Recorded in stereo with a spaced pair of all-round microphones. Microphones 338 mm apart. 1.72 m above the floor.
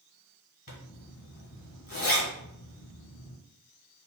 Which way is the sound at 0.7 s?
70° left (ahead or behind).